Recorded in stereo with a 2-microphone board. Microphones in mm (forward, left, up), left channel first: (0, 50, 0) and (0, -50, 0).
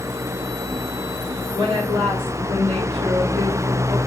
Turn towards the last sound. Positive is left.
turn(degrees=-70)  # may be behind; listen again after turning